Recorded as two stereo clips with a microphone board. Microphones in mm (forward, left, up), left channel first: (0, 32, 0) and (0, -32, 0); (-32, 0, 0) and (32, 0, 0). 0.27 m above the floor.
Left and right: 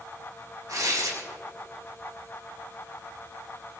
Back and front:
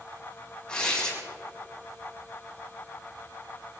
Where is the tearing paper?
105° right, 4.5 m.